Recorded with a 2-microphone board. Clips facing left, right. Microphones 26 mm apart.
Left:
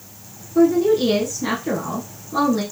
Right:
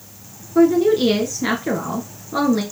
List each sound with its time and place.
0.6 s a woman speaking: 30° right (ahead or behind), 1.3 m